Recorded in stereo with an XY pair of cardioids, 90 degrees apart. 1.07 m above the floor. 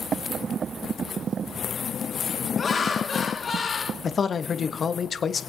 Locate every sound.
2.6 s laughter: 40° left, 1.8 m
4.0 s a man speaking: 50° left, 0.9 m